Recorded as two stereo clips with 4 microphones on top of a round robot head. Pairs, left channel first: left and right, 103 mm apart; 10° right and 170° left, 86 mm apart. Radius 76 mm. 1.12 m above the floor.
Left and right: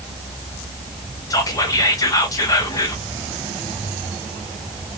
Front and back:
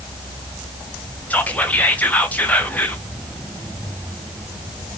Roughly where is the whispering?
Ahead left.